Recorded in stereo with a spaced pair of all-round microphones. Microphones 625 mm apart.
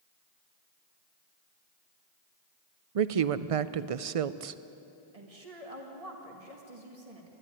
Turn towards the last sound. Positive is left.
turn(degrees=-70)  # may be behind; listen again after turning